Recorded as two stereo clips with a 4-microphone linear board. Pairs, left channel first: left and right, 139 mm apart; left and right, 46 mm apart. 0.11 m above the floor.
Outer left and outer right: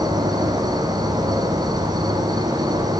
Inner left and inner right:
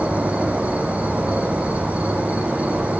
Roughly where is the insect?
Right.